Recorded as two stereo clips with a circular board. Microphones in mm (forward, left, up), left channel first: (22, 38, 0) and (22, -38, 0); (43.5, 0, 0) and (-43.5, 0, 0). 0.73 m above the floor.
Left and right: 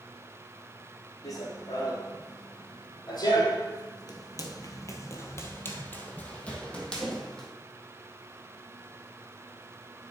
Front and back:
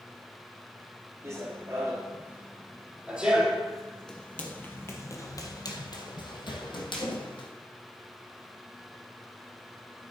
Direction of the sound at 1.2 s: 125° left.